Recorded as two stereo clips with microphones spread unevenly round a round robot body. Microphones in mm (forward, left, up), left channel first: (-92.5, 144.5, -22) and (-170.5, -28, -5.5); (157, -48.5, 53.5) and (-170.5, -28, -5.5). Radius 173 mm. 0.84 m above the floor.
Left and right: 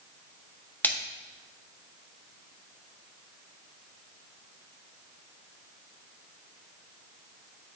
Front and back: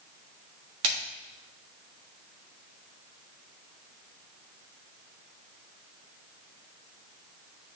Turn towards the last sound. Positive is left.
turn(degrees=145)